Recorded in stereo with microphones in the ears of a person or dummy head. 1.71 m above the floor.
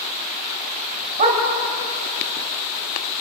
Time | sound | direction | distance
1.2 | a dog barking | 40° right (ahead or behind) | 3 m